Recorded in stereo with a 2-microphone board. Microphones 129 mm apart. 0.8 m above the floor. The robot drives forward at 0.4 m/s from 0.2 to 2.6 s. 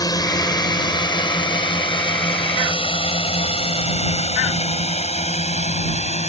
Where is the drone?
30° left (ahead or behind); by 6.3 s 60° left (ahead or behind).